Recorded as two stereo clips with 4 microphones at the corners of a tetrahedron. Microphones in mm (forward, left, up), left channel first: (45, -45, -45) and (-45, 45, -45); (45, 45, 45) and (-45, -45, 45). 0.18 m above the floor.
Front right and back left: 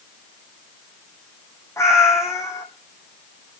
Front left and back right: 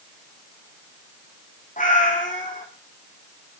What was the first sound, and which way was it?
A cat meowing, 25° left.